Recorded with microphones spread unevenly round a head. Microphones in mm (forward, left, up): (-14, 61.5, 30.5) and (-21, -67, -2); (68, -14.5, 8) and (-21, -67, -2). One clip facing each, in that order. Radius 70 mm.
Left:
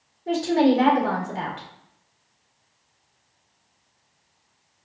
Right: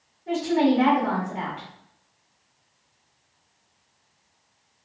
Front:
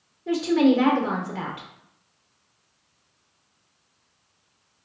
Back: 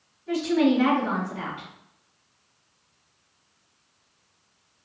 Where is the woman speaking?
35° left, 1.3 m.